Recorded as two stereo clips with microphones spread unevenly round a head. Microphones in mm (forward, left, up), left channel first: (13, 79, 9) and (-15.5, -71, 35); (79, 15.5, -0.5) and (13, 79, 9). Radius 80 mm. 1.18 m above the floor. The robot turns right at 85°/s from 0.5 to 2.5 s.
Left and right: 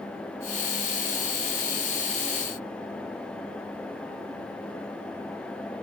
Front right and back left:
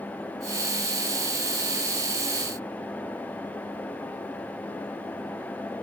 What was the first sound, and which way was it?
Only background noise.